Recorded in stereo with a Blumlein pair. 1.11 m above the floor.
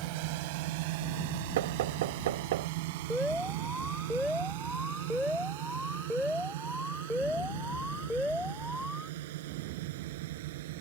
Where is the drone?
45° right; by 10.8 s 55° right.